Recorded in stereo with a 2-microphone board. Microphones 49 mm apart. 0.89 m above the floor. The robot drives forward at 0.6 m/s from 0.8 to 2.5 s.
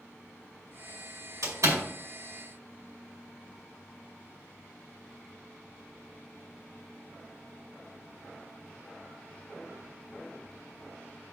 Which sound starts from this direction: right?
A door slam, at 1.4 s.